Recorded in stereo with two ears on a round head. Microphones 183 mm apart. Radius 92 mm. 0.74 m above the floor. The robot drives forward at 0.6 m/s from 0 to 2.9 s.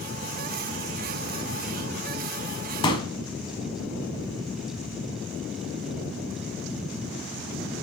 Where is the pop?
25° left (ahead or behind), 1.5 m; by 3.1 s 20° left (ahead or behind), 1.5 m.